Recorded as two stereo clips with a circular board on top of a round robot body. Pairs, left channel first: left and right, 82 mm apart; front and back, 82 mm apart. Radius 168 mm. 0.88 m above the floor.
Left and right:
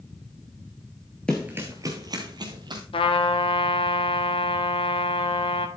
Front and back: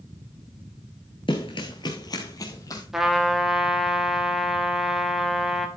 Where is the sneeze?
No sneeze in this recording.